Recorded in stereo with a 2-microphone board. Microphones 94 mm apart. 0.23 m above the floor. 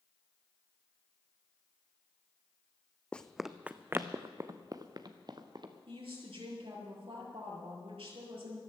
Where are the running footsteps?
10° left (ahead or behind), 0.6 m; by 5.7 s 50° right (ahead or behind), 1.9 m.